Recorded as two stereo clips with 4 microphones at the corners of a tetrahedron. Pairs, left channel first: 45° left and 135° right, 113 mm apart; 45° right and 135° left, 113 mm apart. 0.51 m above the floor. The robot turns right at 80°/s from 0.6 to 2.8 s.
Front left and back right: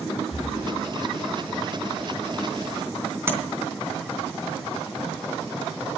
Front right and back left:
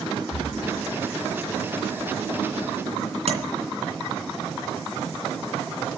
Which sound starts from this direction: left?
Breathing, at 0.3 s.